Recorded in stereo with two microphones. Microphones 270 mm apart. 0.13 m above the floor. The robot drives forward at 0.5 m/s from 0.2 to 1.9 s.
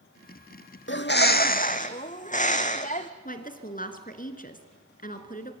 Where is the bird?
45° left (ahead or behind), 0.8 m; by 3.1 s 25° left (ahead or behind), 1.2 m.